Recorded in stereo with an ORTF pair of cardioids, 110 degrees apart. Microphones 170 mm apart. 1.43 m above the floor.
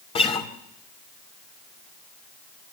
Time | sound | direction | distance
0.1 | a guitar | 35° left | 2.5 m